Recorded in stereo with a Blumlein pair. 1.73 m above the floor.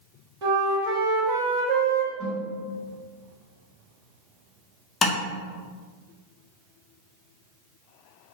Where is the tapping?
20° left, 0.6 m.